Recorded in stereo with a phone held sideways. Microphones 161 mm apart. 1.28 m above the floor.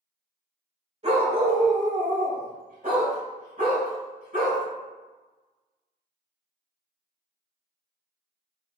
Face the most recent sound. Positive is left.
turn(degrees=-60)  # may be behind; listen again after turning